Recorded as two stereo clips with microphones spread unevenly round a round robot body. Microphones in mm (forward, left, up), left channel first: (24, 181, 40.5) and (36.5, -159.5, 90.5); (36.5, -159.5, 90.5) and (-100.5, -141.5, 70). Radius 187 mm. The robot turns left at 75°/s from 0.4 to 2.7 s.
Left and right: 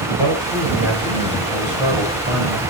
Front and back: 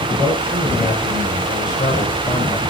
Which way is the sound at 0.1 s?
90° left.